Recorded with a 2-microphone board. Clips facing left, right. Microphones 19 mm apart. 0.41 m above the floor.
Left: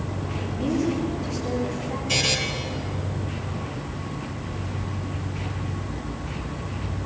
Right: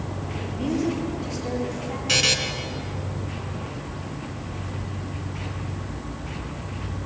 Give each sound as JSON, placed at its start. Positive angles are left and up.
{"t": 0.5, "sound": "a woman speaking", "side_deg": -35, "distance_m": 7.0}
{"t": 2.1, "sound": "a buzzer", "side_deg": -55, "distance_m": 2.5}